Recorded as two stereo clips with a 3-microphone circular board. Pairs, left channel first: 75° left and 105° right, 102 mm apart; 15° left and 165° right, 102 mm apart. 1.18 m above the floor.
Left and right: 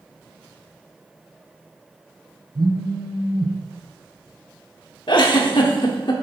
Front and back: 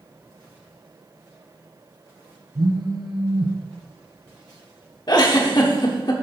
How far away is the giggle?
About 1.2 m.